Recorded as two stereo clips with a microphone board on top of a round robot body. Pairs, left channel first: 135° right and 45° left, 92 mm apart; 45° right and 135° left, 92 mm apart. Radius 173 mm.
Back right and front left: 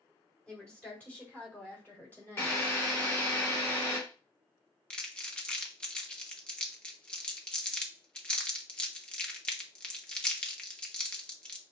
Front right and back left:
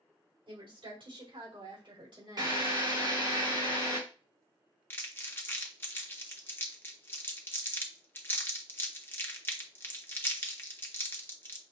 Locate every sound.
0.5 s a woman speaking: 145° left, 3 m; by 2.6 s 165° left, 3.5 m
2.4 s a drill: 165° left, 3 m
4.9 s crumpling: 70° right, 1.3 m